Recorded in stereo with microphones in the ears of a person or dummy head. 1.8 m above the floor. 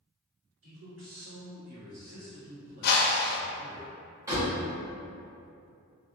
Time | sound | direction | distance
0.6 | a man speaking | 75° right (ahead or behind) | 1.4 m
2.8 | a whoosh | 60° left (ahead or behind) | 0.5 m
4.3 | a door slam | 15° right (ahead or behind) | 1.5 m